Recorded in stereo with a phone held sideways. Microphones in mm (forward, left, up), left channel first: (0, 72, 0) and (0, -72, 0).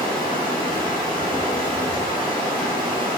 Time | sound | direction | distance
0.0 | running water | 80° left | 0.8 m